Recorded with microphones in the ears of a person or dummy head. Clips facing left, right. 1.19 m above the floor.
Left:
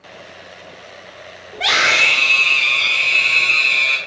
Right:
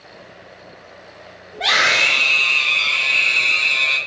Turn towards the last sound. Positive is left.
turn(degrees=35)  # may be behind; listen again after turning